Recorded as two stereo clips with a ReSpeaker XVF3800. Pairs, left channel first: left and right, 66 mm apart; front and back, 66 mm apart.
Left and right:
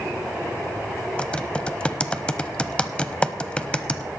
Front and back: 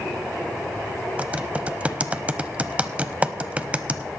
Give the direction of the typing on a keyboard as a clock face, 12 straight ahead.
7 o'clock.